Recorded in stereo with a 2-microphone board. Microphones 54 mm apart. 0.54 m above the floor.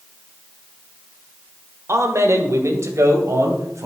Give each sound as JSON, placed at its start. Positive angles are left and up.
{"t": 1.9, "sound": "a man speaking", "side_deg": -60, "distance_m": 1.5}